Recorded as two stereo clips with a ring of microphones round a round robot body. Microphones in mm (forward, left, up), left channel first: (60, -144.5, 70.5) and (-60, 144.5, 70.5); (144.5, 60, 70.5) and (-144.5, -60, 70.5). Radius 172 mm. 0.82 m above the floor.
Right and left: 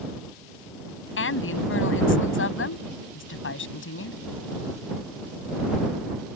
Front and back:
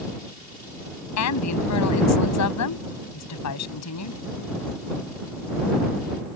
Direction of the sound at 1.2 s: 15° right.